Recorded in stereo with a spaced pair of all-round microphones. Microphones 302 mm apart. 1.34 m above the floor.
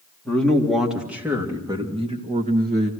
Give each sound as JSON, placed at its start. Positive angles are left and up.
{"t": 0.2, "sound": "a man speaking", "side_deg": 5, "distance_m": 3.5}